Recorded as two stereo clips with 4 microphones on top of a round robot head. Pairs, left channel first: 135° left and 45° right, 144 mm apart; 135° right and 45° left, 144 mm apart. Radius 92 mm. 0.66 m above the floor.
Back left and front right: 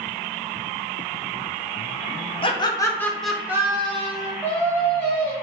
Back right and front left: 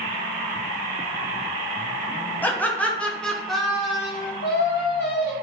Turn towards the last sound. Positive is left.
turn(degrees=-145)